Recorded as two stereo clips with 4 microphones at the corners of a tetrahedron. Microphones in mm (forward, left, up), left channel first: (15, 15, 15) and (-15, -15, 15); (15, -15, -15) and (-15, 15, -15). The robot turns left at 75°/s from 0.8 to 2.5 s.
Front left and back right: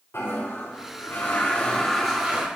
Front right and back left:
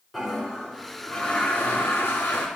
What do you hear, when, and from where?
0.1 s a toilet flushing: 55° left, 3 m; by 2.5 s 70° right, 3 m